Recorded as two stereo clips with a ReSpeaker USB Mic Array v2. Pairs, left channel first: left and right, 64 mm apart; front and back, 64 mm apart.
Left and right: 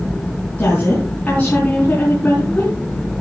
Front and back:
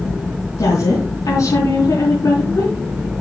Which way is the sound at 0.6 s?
25° left.